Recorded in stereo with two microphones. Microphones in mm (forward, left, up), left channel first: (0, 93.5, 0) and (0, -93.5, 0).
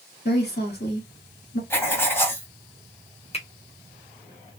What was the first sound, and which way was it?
A woman speaking, 60° left (ahead or behind).